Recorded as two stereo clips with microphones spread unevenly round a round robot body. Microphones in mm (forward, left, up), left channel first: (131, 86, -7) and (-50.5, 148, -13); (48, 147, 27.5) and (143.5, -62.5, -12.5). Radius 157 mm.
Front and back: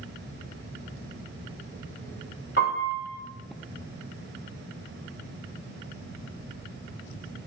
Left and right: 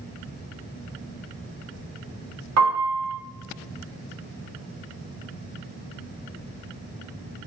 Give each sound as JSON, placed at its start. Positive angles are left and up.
{"t": 2.6, "sound": "a piano", "azimuth_deg": -85, "distance_m": 1.3}